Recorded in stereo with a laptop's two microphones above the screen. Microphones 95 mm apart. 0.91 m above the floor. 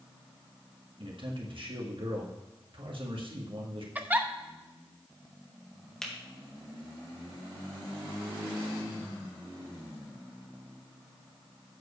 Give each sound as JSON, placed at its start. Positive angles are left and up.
{"t": 1.0, "sound": "a man speaking", "side_deg": -65, "distance_m": 1.8}
{"t": 4.0, "sound": "a giggle", "side_deg": -20, "distance_m": 0.7}
{"t": 6.0, "sound": "a finger snap", "side_deg": 10, "distance_m": 1.1}